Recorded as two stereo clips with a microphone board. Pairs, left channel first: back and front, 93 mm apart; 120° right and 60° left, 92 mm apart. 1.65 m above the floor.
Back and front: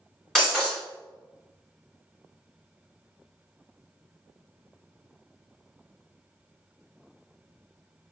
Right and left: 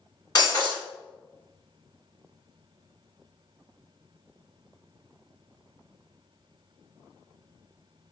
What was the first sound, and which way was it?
Breaking glass, 95° right.